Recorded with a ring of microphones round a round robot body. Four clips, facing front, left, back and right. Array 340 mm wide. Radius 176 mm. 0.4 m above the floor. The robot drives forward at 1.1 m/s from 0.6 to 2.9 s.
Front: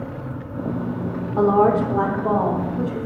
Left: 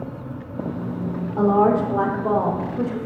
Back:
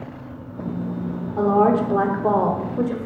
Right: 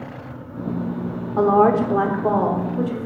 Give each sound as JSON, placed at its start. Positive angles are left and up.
{"t": 1.4, "sound": "a woman speaking", "azimuth_deg": -60, "distance_m": 1.0}